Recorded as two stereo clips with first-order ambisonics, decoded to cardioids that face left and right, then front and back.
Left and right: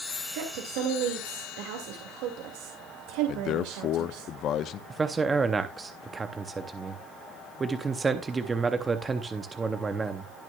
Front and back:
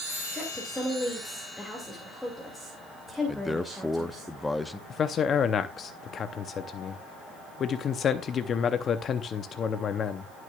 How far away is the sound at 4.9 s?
About 0.7 m.